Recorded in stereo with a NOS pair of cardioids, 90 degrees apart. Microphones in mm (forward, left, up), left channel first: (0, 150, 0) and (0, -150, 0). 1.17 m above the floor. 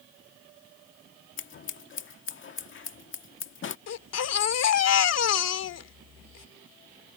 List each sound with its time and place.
1.4 s scissors: 40° left
3.9 s a baby crying: 55° left